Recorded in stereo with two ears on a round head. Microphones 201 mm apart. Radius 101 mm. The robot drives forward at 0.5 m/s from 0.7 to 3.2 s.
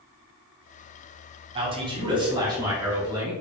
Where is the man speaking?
25° right (ahead or behind), 1.2 m; by 3.3 s 15° right (ahead or behind), 1.8 m.